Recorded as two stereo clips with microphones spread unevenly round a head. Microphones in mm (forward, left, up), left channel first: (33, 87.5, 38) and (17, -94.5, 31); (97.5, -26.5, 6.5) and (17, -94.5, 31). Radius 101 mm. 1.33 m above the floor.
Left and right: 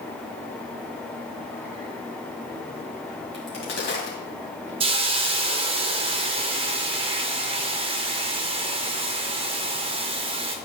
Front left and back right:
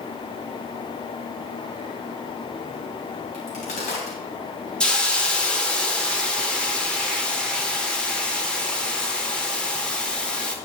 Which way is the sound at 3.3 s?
60° left.